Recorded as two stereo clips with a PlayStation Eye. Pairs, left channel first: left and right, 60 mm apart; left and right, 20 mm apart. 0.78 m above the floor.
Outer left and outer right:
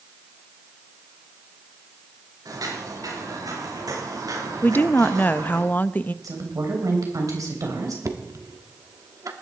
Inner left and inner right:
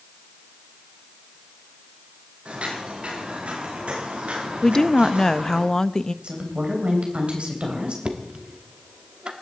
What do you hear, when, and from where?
2.5 s footsteps: 85° right, 10 m
4.6 s a woman speaking: 30° left (ahead or behind), 0.5 m
6.2 s a woman speaking: 70° right (ahead or behind), 3.5 m
8.1 s knocking: 60° right (ahead or behind), 1.6 m